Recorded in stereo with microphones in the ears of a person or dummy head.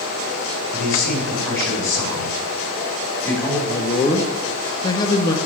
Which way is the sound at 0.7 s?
15° left (ahead or behind).